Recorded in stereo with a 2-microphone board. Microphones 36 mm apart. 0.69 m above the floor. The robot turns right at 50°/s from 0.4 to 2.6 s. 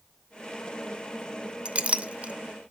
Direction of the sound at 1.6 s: 35° right (ahead or behind).